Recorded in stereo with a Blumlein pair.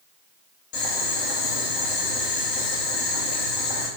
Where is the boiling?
45° left, 3.5 m.